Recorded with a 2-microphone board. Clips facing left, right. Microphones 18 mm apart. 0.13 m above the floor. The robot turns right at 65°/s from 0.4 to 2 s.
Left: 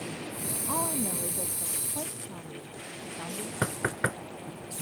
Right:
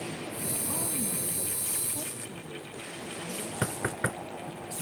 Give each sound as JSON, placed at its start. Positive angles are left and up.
{"t": 0.7, "sound": "a woman speaking", "azimuth_deg": 55}
{"t": 3.6, "sound": "knocking", "side_deg": 15}